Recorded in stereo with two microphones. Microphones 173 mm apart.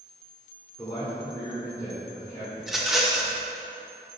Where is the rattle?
Centre (ahead or behind), 0.9 m.